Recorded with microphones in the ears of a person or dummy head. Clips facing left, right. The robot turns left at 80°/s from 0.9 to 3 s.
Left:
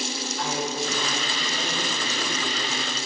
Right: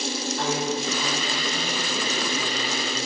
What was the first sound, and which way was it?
A woman speaking, 35° right.